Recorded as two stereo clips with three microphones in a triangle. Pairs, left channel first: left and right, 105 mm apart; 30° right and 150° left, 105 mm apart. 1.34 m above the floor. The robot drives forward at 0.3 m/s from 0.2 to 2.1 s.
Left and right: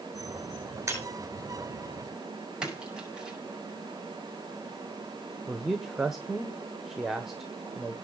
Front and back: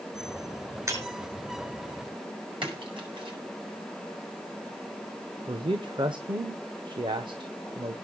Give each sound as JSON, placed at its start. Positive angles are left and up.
{"t": 0.9, "sound": "breaking glass", "azimuth_deg": -150, "distance_m": 4.0}
{"t": 2.6, "sound": "a splash", "azimuth_deg": -175, "distance_m": 5.5}
{"t": 5.5, "sound": "a man speaking", "azimuth_deg": -175, "distance_m": 1.0}